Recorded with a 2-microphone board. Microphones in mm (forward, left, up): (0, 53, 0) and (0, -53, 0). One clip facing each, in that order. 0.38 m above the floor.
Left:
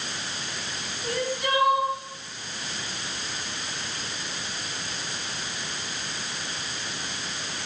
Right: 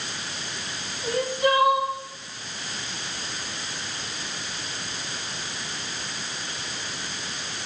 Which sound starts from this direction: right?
Crying, at 1.0 s.